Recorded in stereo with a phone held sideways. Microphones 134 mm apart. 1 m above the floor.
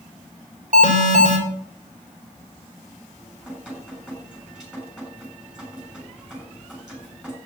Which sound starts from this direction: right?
An alarm, at 0.7 s.